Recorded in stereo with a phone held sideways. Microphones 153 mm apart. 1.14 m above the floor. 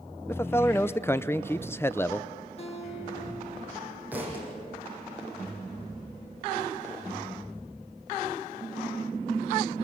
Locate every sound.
0.3 s a man speaking: 15° left (ahead or behind), 0.6 m
2.6 s a guitar: 40° left (ahead or behind), 4 m
4.1 s a thud: 10° right (ahead or behind), 6.5 m